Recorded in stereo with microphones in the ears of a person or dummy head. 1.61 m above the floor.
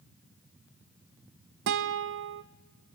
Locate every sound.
1.7 s a guitar: 65° right (ahead or behind), 1.2 m